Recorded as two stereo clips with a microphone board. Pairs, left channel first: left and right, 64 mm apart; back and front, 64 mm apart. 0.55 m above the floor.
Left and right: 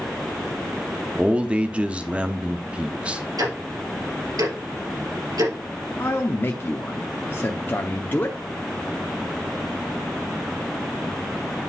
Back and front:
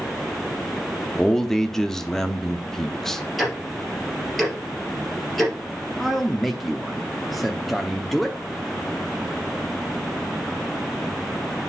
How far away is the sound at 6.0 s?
About 0.8 m.